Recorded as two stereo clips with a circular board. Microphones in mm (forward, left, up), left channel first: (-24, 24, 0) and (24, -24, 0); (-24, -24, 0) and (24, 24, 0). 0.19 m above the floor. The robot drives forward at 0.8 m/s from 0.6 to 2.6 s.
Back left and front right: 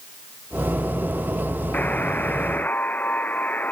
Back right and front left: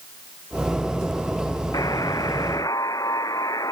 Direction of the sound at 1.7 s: 160° right.